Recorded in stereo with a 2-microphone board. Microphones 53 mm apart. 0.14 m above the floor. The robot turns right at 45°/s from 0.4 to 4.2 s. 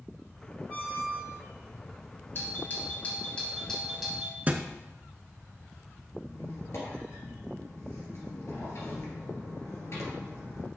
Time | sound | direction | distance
0.7 | a squeak | 20° left | 2.5 m
2.4 | a doorbell | 105° left | 2 m
4.5 | a thud | 30° right (ahead or behind) | 0.5 m
6.2 | a squeak | 60° left (ahead or behind) | 2 m